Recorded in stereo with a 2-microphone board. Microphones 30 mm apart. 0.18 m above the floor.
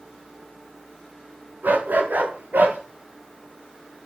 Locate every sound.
1.6 s a dog barking: 80° right, 9 m; by 2.8 s 75° right (ahead or behind), 9 m